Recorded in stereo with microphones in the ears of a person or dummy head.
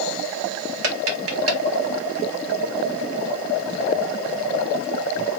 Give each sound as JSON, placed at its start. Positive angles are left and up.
{"t": 0.8, "sound": "tapping", "side_deg": -80, "distance_m": 1.4}